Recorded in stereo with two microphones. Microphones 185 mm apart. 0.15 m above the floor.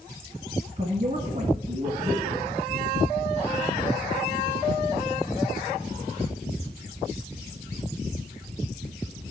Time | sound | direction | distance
0.8 | a man speaking | 40° right (ahead or behind) | 1.5 m